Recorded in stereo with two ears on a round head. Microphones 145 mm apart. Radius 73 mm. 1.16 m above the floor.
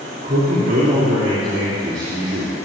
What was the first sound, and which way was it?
A man speaking, 70° right (ahead or behind).